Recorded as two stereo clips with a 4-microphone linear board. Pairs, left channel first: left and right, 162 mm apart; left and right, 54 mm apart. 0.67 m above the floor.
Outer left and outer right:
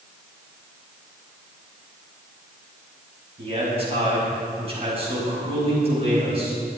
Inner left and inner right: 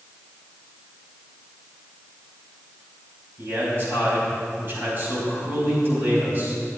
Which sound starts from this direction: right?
A man speaking, at 3.4 s.